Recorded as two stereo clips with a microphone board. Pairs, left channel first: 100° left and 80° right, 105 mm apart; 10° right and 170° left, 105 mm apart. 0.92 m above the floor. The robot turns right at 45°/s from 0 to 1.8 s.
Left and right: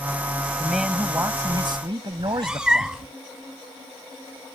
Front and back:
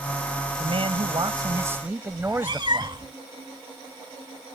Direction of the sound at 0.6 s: 175° right.